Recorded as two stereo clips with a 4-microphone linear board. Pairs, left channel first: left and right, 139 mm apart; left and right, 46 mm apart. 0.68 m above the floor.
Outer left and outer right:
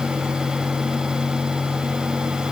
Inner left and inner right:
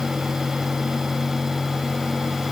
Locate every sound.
Only background noise.